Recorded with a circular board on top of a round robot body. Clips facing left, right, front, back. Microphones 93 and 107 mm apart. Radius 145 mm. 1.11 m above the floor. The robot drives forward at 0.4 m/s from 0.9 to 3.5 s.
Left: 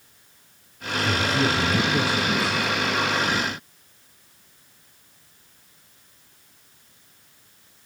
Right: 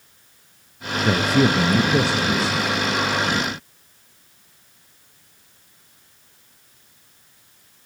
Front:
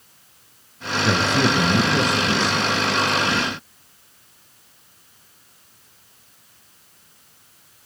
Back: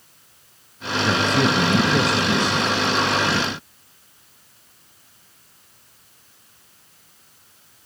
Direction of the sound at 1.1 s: 80° right.